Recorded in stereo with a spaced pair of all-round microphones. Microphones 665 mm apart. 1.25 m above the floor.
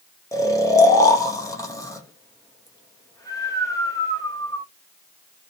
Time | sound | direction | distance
0.3 | snoring | 5° left (ahead or behind) | 0.6 m